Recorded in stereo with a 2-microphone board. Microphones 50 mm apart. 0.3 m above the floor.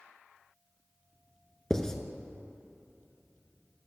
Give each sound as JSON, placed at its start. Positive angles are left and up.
{"t": 1.7, "sound": "writing", "side_deg": 10, "distance_m": 0.6}